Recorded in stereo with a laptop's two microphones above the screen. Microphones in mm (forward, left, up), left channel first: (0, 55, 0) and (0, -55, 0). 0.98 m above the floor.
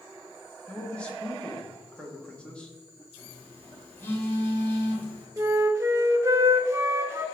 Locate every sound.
0.7 s a man speaking: 10° left (ahead or behind), 1.3 m
3.2 s a phone buzzing: 20° left (ahead or behind), 1.7 m
5.4 s a flute: 25° right (ahead or behind), 0.7 m